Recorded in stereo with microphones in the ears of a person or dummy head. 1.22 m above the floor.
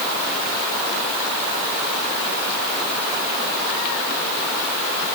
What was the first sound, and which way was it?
Only background noise.